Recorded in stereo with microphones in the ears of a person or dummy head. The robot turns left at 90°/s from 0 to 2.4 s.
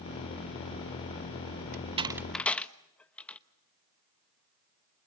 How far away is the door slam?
About 0.8 m.